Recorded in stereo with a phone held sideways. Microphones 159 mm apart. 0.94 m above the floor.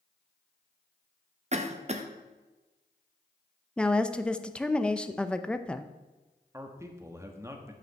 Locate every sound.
1.5 s a cough: 45° right (ahead or behind), 0.8 m
3.8 s a woman speaking: 5° left (ahead or behind), 0.6 m
6.5 s a man speaking: 15° right (ahead or behind), 1.2 m